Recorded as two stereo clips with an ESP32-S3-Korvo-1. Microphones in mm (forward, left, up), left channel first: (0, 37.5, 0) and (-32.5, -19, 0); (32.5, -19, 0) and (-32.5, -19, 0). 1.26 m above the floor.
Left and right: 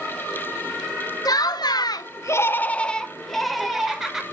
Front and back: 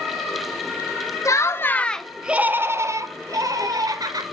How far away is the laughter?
About 0.7 m.